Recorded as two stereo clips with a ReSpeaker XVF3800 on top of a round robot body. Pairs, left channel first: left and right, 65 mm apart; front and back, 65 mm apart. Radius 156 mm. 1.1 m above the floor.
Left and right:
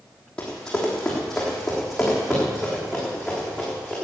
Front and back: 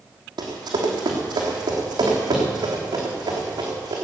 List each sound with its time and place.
0.4 s running footsteps: 170° left, 2.5 m; by 4.0 s 170° right, 4.5 m